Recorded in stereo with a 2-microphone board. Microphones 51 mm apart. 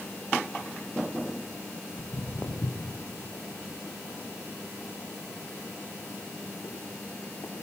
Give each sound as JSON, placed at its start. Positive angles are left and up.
{"t": 2.0, "sound": "footsteps", "side_deg": 60, "distance_m": 3.0}